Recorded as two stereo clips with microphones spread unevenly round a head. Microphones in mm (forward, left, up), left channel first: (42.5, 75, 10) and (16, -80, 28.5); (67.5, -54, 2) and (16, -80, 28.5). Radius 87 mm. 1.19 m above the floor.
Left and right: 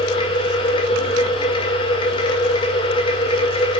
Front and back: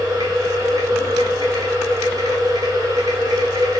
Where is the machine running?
140° left, 1.8 m.